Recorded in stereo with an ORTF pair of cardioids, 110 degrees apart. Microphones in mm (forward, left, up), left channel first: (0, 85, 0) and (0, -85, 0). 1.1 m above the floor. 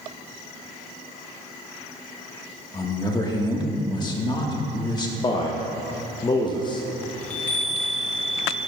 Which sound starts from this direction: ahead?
A chime, at 7.2 s.